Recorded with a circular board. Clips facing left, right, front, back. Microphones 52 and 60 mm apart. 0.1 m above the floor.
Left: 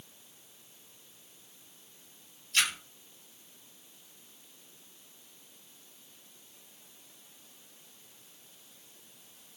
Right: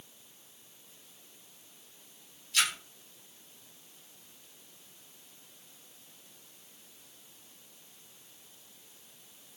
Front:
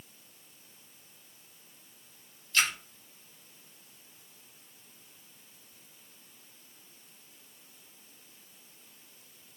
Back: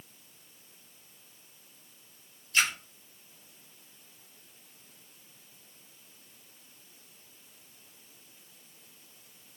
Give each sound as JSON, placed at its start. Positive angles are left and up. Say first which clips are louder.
{"t": 2.5, "sound": "a splash", "louder": "left 1 dB, back 1 dB", "azimuth_deg": 120, "distance_m": 1.4}